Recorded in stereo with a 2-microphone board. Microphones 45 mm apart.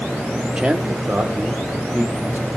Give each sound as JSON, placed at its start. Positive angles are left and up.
{"t": 0.6, "sound": "a man speaking", "side_deg": -20, "distance_m": 1.0}